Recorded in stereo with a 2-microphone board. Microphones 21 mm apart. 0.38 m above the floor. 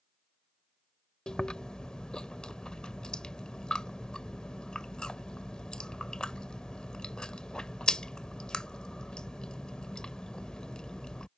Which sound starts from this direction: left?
Chewing, at 1.3 s.